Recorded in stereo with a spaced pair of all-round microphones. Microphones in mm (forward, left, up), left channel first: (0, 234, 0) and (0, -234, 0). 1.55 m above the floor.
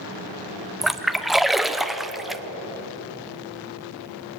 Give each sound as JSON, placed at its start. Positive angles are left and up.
{"t": 0.8, "sound": "a splash", "side_deg": 0, "distance_m": 0.7}